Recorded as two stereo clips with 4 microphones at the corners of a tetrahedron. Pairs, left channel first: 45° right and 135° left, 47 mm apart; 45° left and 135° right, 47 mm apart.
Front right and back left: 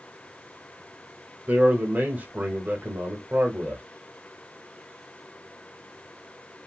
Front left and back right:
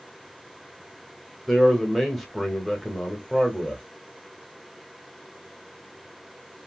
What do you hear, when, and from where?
1.5 s a man speaking: 130° left, 0.9 m